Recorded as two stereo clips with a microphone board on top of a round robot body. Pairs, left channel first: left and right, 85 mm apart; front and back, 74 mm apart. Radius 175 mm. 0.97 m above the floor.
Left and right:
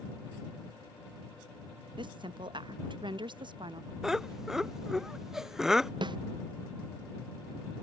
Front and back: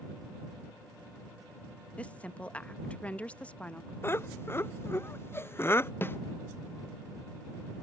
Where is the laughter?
10° right.